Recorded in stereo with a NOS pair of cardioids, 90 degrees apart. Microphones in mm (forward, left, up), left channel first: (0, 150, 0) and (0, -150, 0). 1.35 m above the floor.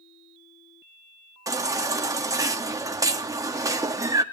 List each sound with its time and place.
1.5 s a baby crying: 10° right, 1.9 m